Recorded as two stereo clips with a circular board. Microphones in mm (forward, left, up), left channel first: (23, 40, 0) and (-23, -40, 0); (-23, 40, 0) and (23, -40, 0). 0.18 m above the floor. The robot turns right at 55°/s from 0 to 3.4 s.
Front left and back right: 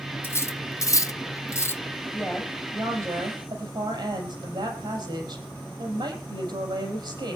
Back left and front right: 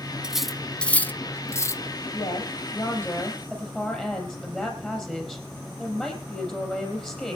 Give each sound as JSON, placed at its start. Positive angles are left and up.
{"t": 0.2, "sound": "cutlery clinking", "azimuth_deg": 15, "distance_m": 0.7}
{"t": 2.1, "sound": "a woman speaking", "azimuth_deg": 145, "distance_m": 5.0}